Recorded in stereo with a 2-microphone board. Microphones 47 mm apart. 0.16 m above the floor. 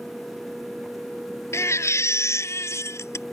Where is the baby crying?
65° left (ahead or behind).